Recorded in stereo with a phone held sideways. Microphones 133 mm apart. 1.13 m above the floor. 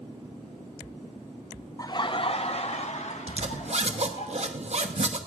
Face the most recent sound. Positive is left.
turn(degrees=-55)  # may be behind; listen again after turning